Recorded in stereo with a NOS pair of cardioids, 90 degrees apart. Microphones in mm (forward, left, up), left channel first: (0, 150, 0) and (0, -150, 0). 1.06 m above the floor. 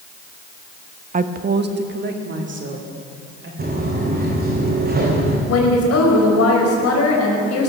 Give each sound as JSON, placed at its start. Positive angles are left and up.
{"t": 1.1, "sound": "a woman speaking", "azimuth_deg": -25, "distance_m": 0.9}
{"t": 3.6, "sound": "footsteps", "azimuth_deg": -30, "distance_m": 4.5}
{"t": 5.5, "sound": "a woman speaking", "azimuth_deg": 55, "distance_m": 4.5}